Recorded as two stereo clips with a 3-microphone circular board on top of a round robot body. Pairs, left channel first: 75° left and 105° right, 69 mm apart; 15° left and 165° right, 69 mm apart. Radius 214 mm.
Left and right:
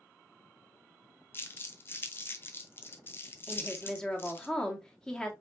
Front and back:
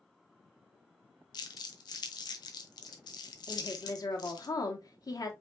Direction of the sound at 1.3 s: 20° left.